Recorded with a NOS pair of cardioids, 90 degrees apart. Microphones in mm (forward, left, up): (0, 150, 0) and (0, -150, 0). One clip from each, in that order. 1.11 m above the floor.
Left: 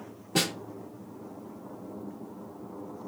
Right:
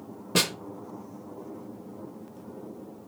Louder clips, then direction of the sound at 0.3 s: Right 3 dB; 30° right.